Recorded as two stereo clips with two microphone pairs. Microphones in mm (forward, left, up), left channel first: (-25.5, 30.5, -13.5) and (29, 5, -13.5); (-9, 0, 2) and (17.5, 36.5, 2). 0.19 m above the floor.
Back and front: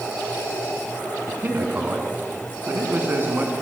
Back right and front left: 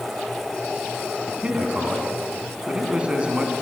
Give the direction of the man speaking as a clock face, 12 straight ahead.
12 o'clock.